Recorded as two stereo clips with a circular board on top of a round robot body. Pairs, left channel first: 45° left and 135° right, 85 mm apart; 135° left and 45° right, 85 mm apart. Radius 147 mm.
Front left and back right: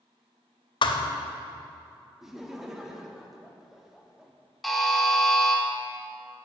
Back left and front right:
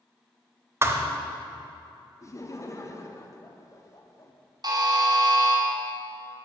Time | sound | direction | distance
0.8 | a thud | 15° left | 0.6 m
2.2 | laughter | 145° left | 1.0 m
4.6 | a buzzer | 45° right | 1.7 m